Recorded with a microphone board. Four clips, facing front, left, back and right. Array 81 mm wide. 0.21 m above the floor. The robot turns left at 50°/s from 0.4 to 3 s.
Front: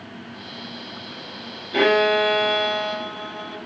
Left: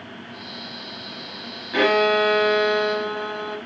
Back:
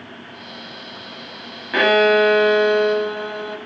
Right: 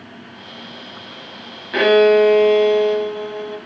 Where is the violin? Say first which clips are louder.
Right 7 dB, back 3 dB; 160° right, 1.5 m; by 3.6 s 135° left, 1.5 m.